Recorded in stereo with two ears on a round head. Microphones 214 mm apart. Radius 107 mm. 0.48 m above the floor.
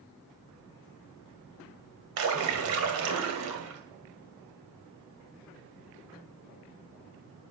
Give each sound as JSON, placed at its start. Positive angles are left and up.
{"t": 2.2, "sound": "a splash", "side_deg": -65, "distance_m": 2.5}